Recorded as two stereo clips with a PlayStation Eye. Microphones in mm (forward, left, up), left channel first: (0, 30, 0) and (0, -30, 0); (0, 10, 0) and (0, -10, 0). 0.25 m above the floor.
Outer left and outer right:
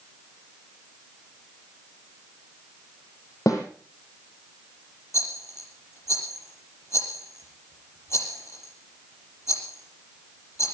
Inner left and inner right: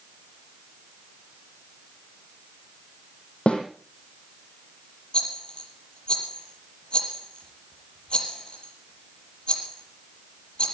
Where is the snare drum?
70° left (ahead or behind), 6 m.